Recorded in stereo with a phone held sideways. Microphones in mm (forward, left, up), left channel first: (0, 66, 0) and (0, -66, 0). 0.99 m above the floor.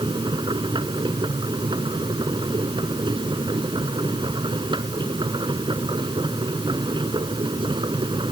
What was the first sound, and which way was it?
A machine running, 35° right (ahead or behind).